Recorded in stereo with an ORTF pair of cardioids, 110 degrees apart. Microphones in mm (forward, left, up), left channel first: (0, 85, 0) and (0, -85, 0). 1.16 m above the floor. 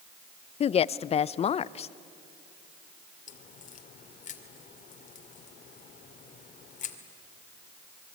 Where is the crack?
45° left, 2.5 m.